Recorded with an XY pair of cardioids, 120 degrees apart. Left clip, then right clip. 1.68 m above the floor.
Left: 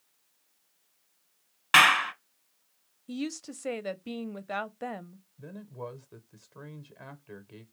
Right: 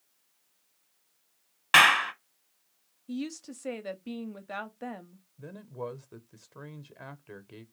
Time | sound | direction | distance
1.7 | a clap | 5° right | 0.9 m
3.1 | a woman speaking | 20° left | 0.5 m
5.4 | a man speaking | 15° right | 0.7 m